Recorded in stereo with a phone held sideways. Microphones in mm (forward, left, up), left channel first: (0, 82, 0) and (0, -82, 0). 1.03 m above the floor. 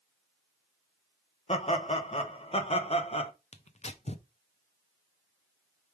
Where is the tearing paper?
40° left (ahead or behind), 0.5 m.